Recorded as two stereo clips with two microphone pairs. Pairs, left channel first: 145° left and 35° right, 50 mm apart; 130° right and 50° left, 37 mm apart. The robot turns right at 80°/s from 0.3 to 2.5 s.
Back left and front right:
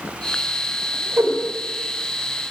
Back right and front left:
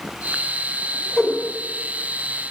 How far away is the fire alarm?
I don't hear a fire alarm.